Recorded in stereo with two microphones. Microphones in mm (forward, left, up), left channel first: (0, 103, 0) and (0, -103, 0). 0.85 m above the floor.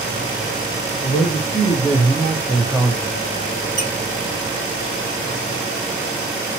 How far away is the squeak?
About 1.6 m.